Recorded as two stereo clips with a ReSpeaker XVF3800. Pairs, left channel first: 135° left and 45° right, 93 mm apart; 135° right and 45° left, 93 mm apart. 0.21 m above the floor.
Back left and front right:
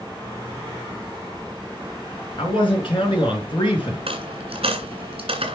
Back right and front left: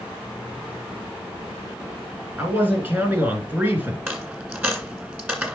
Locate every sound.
2.4 s a man speaking: 115° left, 3.5 m
4.1 s a dropped coin: 30° right, 1.7 m